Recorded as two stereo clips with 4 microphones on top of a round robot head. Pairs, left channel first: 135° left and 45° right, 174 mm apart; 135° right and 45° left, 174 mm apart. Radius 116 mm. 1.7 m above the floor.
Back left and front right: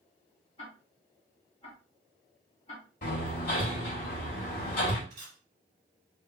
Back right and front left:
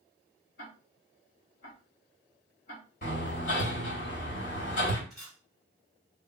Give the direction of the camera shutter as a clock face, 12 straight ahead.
1 o'clock.